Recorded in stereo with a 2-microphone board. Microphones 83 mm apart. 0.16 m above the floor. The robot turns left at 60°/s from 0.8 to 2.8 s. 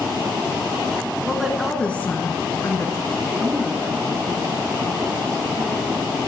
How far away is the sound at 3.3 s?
About 1.7 m.